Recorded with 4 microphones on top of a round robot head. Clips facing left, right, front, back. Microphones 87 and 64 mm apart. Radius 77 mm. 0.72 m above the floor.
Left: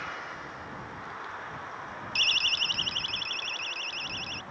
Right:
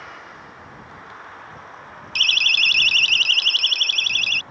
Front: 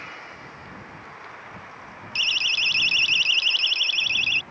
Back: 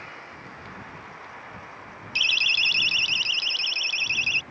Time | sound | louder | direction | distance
2.1 | a siren | right 10 dB, back 1 dB | 130° right | ?